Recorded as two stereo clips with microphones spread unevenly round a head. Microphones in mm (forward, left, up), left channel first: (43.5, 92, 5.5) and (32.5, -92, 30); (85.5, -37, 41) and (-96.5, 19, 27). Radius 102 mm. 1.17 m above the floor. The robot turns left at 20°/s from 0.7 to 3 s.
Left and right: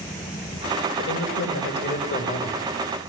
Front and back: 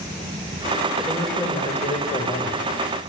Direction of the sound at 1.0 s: 75° left.